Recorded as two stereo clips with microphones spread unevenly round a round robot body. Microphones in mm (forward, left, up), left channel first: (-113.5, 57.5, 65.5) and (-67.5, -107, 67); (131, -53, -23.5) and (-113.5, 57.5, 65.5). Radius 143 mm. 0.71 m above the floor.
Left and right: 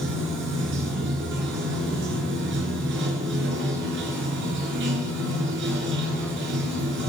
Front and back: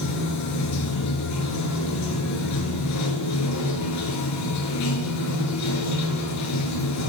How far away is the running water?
About 2.5 m.